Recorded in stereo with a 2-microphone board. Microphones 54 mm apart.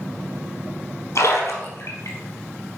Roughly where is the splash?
Left.